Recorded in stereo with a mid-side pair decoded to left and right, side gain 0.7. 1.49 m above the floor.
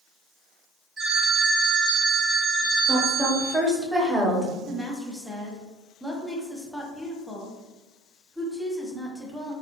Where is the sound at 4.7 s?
Straight ahead, 1.1 m.